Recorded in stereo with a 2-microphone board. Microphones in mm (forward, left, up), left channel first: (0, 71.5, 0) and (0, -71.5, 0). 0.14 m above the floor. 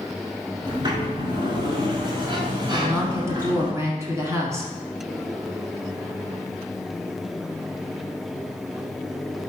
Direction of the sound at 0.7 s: 35° right (ahead or behind).